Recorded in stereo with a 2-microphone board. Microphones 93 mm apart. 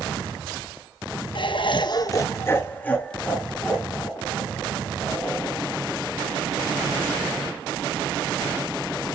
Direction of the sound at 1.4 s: 60° left (ahead or behind).